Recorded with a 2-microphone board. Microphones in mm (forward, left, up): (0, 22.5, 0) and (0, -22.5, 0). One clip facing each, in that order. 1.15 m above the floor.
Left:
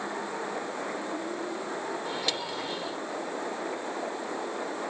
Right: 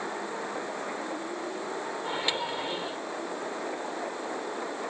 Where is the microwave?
25° right (ahead or behind).